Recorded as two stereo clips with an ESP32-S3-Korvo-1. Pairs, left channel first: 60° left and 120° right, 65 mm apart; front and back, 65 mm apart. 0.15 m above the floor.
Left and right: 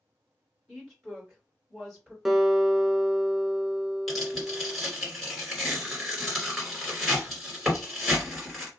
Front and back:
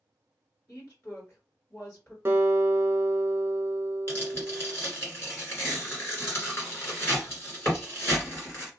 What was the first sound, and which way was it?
A woman speaking, 30° right.